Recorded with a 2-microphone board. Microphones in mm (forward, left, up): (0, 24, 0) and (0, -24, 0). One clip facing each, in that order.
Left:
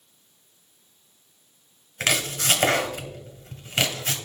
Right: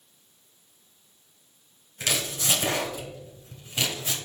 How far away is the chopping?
About 2.0 m.